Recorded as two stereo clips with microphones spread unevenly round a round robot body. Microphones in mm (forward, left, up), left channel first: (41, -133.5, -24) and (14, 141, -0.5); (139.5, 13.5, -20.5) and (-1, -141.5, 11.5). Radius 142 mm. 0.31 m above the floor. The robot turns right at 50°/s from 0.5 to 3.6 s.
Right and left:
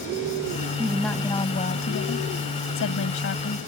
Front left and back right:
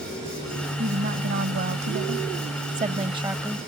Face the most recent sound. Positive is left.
turn(degrees=-40)